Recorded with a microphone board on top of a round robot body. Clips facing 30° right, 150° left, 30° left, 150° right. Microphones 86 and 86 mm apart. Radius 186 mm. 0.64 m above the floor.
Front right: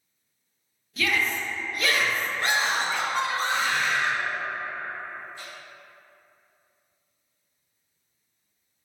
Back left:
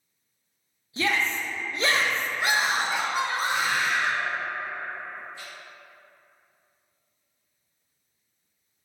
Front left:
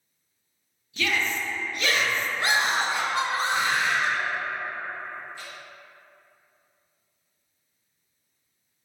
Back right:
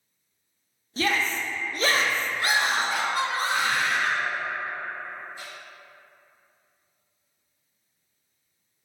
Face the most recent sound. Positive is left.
turn(degrees=-80)